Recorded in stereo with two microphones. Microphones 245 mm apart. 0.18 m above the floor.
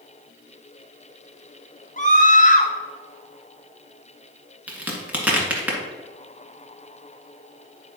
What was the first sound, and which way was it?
A scream, 35° left (ahead or behind).